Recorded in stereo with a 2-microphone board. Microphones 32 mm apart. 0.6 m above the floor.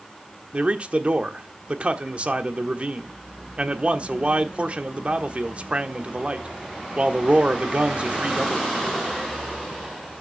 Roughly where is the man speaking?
Right.